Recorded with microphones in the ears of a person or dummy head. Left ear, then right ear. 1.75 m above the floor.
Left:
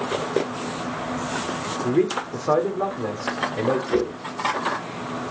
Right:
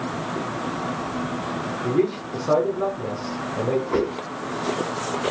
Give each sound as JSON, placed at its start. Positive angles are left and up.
{"t": 1.8, "sound": "a man speaking", "side_deg": 45, "distance_m": 0.9}
{"t": 3.9, "sound": "a whoosh", "side_deg": 50, "distance_m": 3.5}